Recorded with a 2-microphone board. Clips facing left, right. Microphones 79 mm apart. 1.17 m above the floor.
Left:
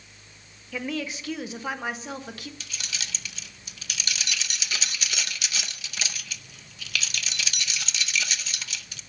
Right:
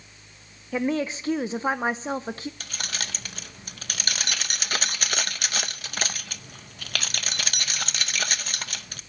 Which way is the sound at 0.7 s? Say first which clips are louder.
Right 6 dB; 30° right (ahead or behind).